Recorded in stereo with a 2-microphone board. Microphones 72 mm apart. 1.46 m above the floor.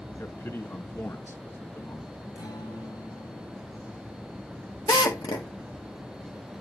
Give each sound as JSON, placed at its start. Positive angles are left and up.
{"t": 0.2, "sound": "a man speaking", "side_deg": 35, "distance_m": 2.0}
{"t": 2.4, "sound": "a guitar", "side_deg": 70, "distance_m": 5.5}
{"t": 4.9, "sound": "a drill", "side_deg": 80, "distance_m": 2.0}